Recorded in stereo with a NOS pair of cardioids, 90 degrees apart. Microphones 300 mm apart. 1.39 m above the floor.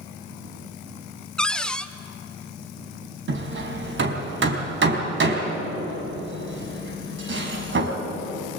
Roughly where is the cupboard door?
Ahead.